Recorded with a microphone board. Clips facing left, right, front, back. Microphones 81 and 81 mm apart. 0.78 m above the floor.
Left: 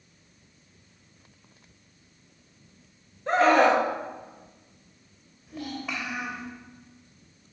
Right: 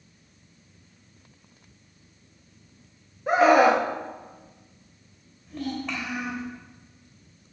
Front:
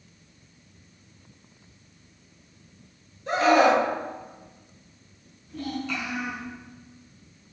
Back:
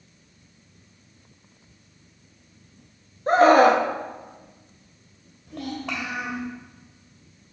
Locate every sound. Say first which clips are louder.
3.3 s a scream: right 2 dB, back 4 dB; 165° right, 1.0 m
5.5 s a child speaking: right 3 dB, even; 170° left, 2.5 m